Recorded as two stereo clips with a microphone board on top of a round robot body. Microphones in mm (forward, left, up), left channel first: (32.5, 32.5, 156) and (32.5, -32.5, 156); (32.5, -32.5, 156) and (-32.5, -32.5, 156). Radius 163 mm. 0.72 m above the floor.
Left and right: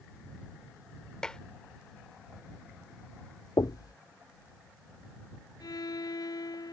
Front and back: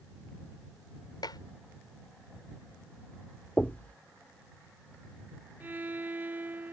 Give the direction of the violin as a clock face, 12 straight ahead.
8 o'clock.